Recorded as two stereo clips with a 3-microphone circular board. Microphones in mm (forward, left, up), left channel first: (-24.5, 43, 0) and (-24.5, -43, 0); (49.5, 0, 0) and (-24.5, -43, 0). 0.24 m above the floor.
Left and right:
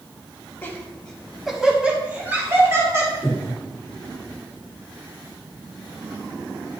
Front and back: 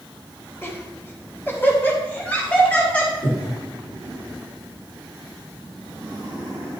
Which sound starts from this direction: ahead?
Breathing, at 3.2 s.